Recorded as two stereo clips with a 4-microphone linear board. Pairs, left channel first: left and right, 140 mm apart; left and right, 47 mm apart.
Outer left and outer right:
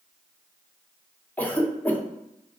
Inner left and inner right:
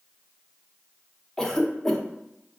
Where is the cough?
15° left (ahead or behind), 0.8 m.